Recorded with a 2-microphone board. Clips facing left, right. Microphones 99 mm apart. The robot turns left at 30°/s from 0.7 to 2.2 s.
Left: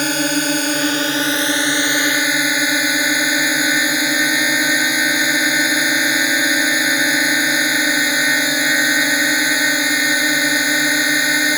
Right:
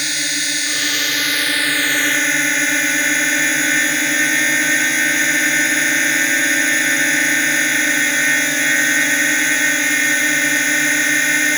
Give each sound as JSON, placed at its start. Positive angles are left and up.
{"t": 0.0, "sound": "a drone", "azimuth_deg": 60}